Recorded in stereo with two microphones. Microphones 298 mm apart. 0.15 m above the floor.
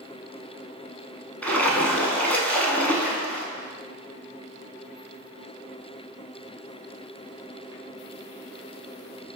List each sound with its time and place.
1.4 s a splash: 5° left (ahead or behind), 0.6 m